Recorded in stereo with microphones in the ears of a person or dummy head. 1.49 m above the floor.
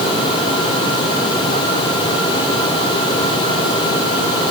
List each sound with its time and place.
Only background noise.